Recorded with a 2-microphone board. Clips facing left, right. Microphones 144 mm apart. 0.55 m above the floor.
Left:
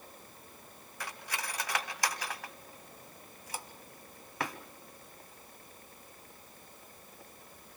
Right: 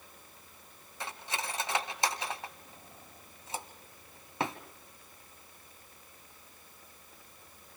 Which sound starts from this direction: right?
Cutlery clinking, at 1.0 s.